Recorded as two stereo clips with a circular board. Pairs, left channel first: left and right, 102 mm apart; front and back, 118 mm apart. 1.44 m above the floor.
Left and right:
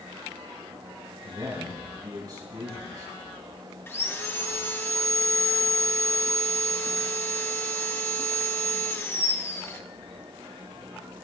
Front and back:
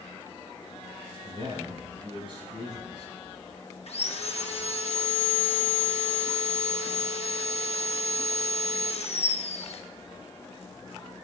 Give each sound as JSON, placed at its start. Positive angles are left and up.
{"t": 1.2, "sound": "a man speaking", "azimuth_deg": -140, "distance_m": 9.0}
{"t": 3.9, "sound": "sawing", "azimuth_deg": 25, "distance_m": 1.3}